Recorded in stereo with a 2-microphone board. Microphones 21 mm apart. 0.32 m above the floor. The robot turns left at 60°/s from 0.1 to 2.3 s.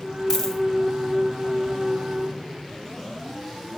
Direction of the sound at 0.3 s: 20° left (ahead or behind).